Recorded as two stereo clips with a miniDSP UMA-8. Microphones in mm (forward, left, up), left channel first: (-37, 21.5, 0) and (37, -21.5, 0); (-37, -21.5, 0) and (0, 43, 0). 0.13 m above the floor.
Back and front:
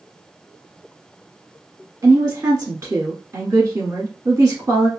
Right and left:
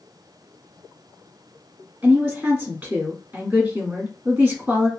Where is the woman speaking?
5° left, 1.5 m.